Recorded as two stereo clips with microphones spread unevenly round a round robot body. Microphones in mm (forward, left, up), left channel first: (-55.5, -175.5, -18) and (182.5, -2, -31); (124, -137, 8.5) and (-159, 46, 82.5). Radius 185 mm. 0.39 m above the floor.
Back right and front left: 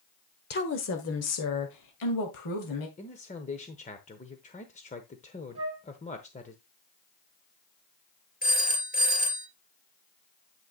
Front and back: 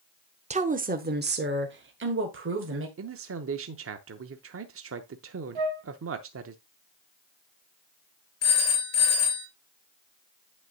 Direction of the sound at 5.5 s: 110° left.